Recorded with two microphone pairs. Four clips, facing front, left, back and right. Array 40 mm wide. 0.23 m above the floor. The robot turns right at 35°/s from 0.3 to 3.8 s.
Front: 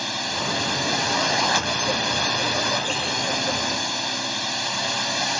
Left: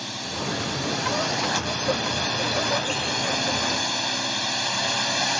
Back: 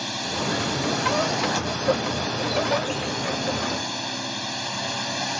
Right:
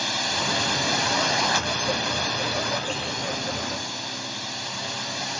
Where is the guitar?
I don't hear a guitar.